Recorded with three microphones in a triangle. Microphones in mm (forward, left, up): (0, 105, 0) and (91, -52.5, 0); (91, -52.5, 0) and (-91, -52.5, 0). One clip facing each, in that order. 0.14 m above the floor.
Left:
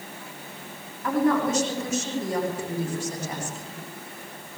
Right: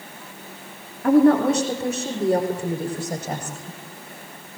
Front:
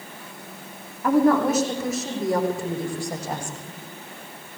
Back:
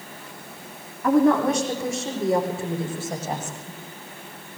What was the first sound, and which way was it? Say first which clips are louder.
A woman speaking: right 8 dB, even; 85° right.